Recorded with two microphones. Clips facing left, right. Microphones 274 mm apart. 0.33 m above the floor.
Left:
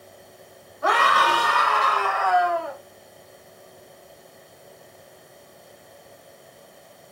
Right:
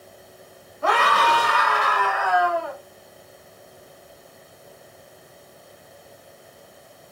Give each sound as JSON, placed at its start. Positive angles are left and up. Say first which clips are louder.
{"t": 0.8, "sound": "a scream", "louder": "right 1 dB", "side_deg": -35, "distance_m": 1.2}